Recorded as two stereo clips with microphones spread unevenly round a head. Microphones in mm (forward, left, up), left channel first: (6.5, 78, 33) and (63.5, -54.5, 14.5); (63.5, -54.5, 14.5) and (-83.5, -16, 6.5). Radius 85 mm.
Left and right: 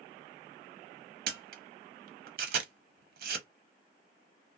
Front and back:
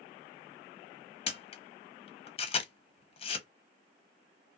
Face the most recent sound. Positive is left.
turn(degrees=-55)